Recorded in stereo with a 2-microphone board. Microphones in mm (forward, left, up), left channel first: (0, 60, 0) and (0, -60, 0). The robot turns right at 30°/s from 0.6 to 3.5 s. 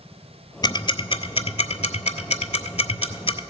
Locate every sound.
0.6 s ticking: 40° left (ahead or behind), 0.5 m; by 3.4 s 55° left (ahead or behind), 0.5 m